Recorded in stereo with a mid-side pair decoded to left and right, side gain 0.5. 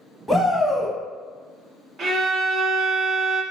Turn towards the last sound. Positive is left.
turn(degrees=-45)